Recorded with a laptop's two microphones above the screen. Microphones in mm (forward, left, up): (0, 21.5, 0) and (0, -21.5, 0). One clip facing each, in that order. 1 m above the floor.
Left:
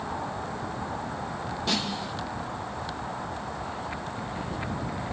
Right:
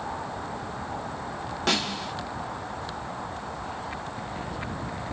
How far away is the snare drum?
About 0.7 m.